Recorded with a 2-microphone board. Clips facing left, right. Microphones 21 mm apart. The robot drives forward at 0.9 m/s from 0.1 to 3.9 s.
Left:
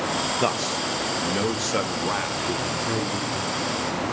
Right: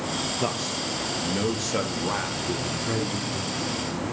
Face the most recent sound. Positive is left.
turn(degrees=10)  # may be behind; listen again after turning